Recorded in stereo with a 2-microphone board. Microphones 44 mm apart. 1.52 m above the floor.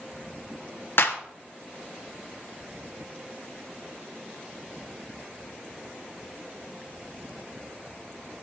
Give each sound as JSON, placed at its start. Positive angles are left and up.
{"t": 1.0, "sound": "a clap", "side_deg": 65, "distance_m": 1.2}